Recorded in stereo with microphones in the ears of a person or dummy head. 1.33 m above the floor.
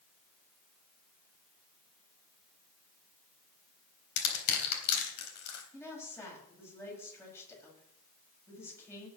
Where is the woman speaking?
15° left (ahead or behind), 7 m.